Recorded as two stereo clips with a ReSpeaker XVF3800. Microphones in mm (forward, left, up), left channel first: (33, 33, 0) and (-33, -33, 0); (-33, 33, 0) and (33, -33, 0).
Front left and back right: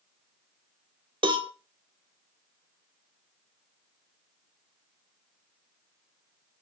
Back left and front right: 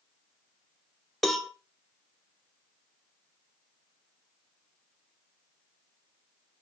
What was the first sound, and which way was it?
A cowbell, 135° right.